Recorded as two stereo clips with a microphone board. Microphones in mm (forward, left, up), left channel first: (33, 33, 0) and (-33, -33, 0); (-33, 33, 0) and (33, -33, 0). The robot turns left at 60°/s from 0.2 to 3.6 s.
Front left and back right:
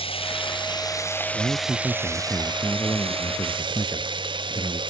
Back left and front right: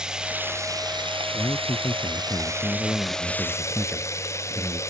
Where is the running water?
35° left; by 4.9 s 165° right.